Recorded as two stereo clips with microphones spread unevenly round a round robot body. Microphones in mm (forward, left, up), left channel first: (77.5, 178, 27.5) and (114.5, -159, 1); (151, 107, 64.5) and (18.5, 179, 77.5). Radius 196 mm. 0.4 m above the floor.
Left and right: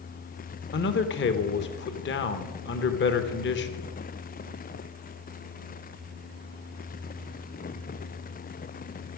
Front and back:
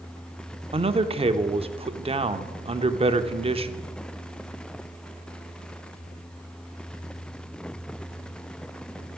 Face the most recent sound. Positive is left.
turn(degrees=135)